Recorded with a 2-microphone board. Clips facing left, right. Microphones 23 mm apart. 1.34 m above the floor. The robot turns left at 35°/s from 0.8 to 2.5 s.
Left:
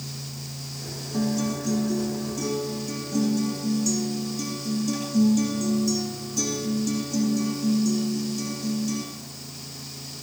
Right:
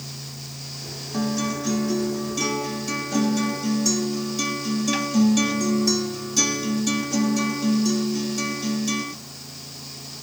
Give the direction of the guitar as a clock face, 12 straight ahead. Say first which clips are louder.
Right 1 dB; 1 o'clock.